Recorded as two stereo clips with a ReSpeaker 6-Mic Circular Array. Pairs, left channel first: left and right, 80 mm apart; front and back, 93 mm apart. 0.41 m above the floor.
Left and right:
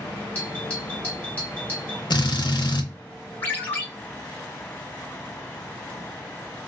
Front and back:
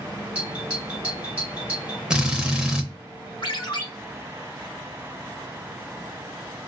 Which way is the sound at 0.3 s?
125° left.